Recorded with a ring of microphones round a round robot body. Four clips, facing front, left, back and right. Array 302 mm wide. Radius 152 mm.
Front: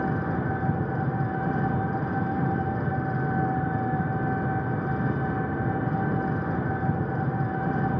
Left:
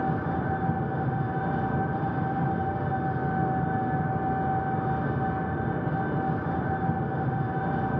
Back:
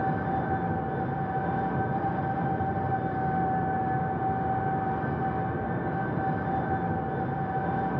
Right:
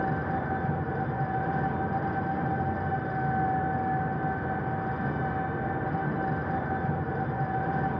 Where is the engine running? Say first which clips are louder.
Left 1 dB, even; 20° left, 3 m.